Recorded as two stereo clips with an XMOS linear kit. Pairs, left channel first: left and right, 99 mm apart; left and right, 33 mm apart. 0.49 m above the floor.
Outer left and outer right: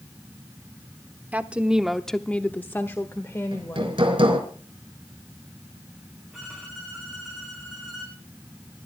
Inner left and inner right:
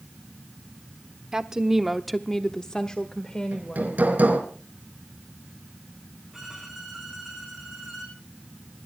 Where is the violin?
Centre (ahead or behind), 6.5 m.